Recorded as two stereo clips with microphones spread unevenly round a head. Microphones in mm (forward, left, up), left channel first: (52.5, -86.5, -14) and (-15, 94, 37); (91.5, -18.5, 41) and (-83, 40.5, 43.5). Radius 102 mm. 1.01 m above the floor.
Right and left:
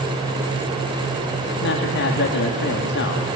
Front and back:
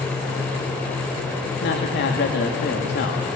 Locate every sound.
1.6 s a man speaking: 50° right, 1.8 m